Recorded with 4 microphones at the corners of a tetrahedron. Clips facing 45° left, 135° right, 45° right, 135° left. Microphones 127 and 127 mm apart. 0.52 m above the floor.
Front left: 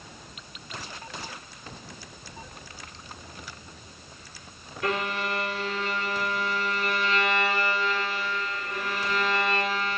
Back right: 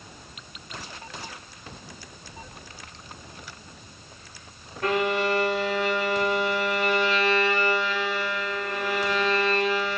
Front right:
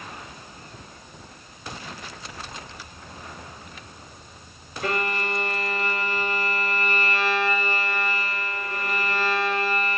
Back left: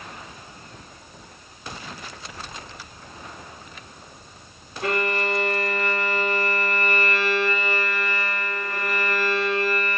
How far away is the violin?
About 1.6 m.